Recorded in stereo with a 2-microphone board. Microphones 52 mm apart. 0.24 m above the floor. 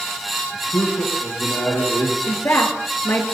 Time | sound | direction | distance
0.5 | a man speaking | 65° left (ahead or behind) | 5.5 m
2.3 | a woman speaking | 55° left (ahead or behind) | 3.5 m